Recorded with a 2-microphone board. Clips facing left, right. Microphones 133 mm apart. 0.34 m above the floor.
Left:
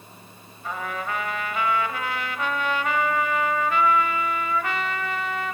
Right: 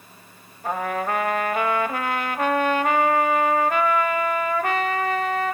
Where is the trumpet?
50° right (ahead or behind), 0.6 m.